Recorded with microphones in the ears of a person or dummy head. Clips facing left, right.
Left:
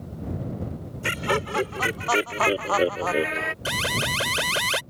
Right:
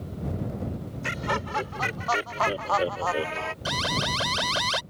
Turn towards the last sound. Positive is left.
turn(degrees=35)  # may be behind; listen again after turning